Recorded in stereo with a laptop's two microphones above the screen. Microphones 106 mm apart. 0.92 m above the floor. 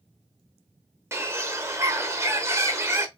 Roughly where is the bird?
Right.